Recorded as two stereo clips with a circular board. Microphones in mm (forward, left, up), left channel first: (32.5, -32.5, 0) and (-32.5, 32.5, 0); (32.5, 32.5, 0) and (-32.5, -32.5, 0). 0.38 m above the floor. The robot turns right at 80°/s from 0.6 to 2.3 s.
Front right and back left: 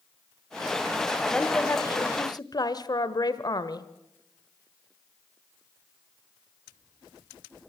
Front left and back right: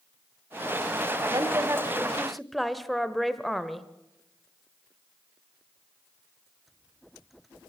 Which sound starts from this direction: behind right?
A woman speaking, at 1.3 s.